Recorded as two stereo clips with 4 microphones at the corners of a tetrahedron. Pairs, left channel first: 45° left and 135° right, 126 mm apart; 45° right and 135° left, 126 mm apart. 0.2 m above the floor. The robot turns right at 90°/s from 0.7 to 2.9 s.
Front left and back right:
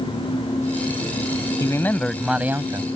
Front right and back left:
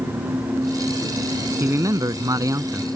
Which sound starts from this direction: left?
A man speaking, at 1.6 s.